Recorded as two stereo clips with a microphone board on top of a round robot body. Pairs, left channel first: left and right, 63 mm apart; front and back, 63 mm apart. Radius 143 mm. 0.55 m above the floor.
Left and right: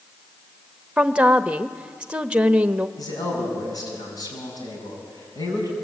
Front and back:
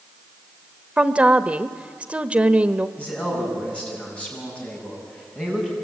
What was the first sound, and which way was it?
A woman speaking, 140° right.